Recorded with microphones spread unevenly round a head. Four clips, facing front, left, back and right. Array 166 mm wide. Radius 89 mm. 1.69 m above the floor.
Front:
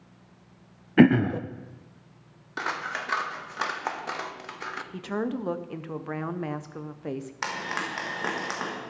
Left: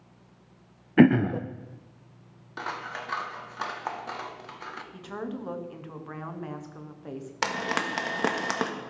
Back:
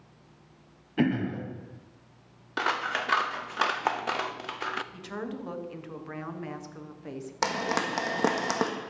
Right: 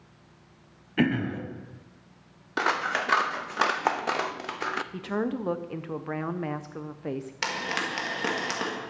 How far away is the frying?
About 1.4 m.